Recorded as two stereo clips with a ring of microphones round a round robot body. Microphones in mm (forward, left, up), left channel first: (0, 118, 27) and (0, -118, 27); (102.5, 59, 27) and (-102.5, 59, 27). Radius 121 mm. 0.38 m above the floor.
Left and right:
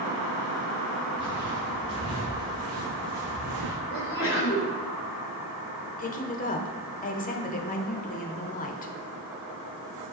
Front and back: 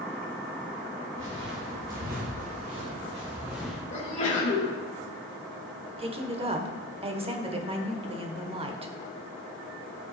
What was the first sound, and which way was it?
Footsteps, 135° right.